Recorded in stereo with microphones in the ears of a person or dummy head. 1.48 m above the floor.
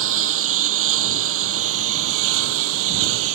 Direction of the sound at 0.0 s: 85° right.